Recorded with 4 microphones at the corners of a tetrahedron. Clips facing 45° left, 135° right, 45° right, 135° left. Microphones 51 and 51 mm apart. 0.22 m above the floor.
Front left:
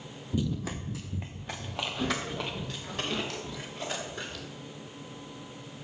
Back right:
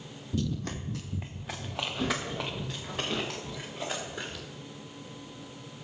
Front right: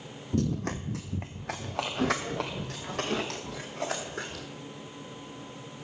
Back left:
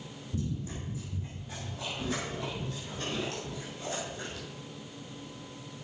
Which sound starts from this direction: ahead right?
Running footsteps, at 0.3 s.